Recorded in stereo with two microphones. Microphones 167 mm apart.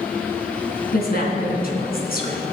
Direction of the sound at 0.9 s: 65° left (ahead or behind).